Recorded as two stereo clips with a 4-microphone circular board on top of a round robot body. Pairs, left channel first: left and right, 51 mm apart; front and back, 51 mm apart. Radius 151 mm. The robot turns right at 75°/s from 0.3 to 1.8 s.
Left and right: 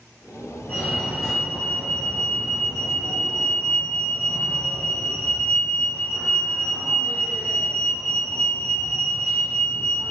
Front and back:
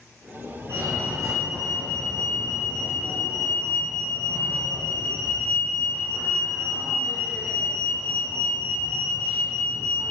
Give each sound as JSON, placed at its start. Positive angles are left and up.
{"t": 0.7, "sound": "a fire alarm", "azimuth_deg": 155, "distance_m": 7.0}